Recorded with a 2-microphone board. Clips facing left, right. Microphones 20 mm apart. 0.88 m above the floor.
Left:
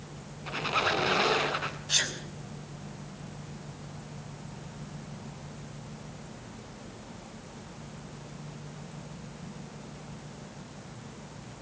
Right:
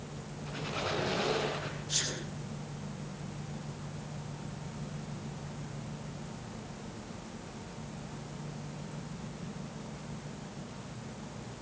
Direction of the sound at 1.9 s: 85° left.